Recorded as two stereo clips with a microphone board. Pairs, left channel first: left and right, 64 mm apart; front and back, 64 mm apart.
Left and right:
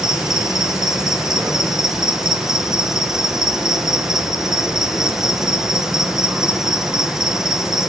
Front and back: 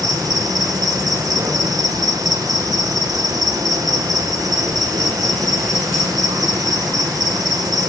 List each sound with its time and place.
0.0 s an insect: 170° right, 2.5 m